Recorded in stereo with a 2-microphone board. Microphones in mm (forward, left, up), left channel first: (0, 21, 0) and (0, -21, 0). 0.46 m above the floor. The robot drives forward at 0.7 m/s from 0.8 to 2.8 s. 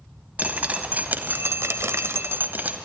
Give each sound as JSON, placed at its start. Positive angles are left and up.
{"t": 0.4, "sound": "dripping", "side_deg": -35, "distance_m": 0.9}